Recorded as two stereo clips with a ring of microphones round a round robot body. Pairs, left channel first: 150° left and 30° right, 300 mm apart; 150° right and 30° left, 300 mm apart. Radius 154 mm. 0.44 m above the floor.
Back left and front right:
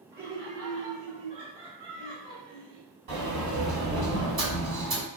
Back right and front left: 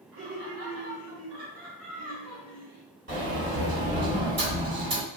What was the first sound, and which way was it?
Laughter, 10° left.